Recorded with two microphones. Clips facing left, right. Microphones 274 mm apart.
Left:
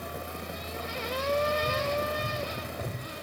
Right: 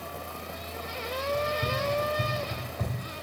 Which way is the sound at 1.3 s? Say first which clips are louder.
Left 2 dB; 60° right (ahead or behind).